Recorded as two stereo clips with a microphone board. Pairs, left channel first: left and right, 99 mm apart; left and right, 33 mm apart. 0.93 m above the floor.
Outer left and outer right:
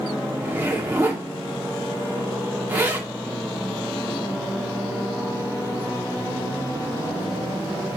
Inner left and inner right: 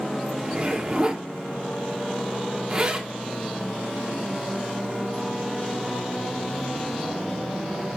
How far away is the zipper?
About 2.5 m.